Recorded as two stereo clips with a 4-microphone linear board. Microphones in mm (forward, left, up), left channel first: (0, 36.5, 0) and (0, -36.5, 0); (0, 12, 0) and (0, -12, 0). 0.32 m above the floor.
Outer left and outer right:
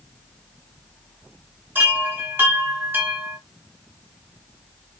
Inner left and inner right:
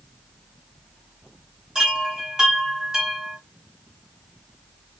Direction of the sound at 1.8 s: 30° right (ahead or behind).